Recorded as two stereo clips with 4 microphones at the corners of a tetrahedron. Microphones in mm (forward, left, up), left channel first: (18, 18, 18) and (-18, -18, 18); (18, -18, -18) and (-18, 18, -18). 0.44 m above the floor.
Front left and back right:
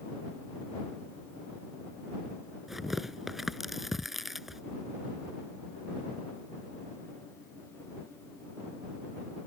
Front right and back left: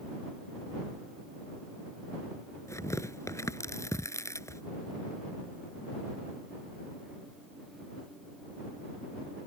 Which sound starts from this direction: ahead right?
Tearing paper, at 2.7 s.